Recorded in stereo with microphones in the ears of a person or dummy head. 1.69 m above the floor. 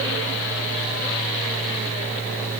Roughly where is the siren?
I don't hear a siren.